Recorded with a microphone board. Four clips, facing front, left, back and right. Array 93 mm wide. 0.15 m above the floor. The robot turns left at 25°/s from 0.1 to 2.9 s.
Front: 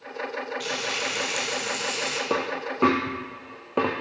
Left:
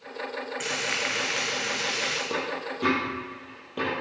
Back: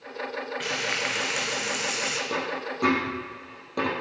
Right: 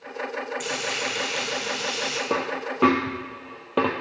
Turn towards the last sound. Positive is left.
turn(degrees=-55)